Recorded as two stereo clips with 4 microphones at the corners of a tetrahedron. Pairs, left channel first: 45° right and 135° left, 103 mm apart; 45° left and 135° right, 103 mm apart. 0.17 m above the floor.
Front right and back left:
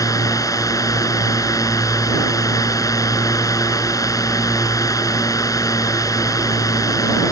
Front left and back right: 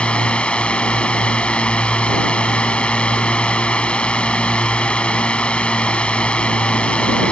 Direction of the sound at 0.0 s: 25° right.